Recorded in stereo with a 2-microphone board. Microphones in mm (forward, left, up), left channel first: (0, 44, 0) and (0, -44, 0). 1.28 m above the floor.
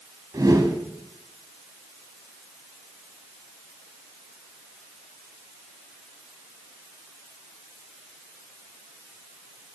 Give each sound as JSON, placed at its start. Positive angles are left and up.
{"t": 0.3, "sound": "a whoosh", "side_deg": -40, "distance_m": 1.6}